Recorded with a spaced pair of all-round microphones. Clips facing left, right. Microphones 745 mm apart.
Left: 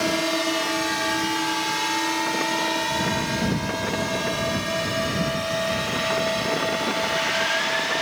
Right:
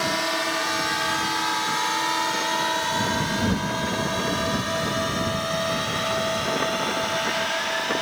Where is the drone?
60° left (ahead or behind); by 8.0 s 55° left (ahead or behind).